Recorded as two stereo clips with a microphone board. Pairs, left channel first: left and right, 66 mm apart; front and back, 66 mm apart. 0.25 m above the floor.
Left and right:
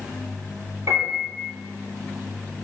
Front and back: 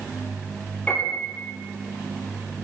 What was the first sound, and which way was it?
A piano, 65° right.